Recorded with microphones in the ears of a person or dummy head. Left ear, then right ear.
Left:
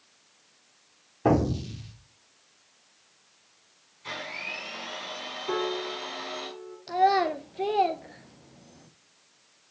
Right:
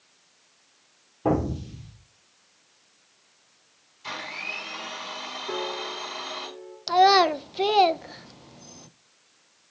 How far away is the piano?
About 3.5 m.